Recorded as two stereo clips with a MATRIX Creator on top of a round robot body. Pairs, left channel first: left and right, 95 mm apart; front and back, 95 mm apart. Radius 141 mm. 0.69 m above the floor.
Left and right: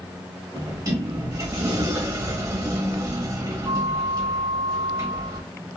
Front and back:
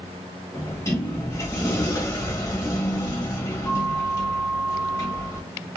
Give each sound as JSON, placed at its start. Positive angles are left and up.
{"t": 0.5, "sound": "a sliding door", "azimuth_deg": -50, "distance_m": 1.5}